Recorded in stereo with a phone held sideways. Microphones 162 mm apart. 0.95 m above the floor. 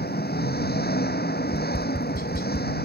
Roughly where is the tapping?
Left.